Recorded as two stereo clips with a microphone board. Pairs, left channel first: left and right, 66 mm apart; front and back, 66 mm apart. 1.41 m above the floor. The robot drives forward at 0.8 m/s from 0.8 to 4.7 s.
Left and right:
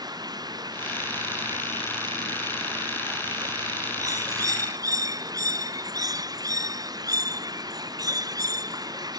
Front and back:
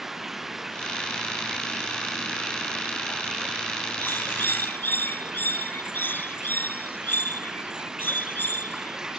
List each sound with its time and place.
0.0 s running water: 95° right; by 9.2 s 100° right
4.0 s a bird: 60° right